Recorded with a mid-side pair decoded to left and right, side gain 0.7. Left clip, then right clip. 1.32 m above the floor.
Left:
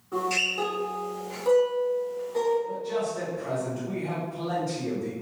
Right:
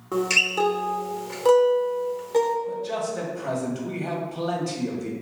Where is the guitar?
65° right, 0.7 m.